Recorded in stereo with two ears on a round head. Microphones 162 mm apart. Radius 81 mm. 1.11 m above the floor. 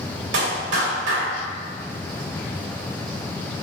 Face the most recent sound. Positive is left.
turn(degrees=-75)  # may be behind; listen again after turning